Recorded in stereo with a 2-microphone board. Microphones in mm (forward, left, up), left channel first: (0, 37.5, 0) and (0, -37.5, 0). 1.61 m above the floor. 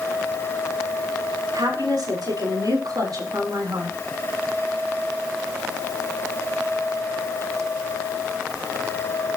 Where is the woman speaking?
65° right (ahead or behind), 5 m; by 4.0 s 60° right (ahead or behind), 3.5 m.